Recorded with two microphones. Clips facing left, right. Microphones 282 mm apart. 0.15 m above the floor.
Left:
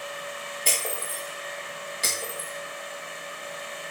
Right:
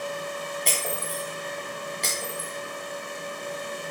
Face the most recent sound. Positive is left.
turn(degrees=0)  # may be behind; listen again after turning